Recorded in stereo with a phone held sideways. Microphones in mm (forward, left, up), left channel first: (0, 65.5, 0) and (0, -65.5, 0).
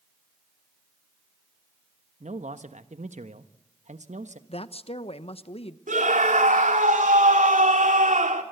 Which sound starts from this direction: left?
A woman speaking, at 4.5 s.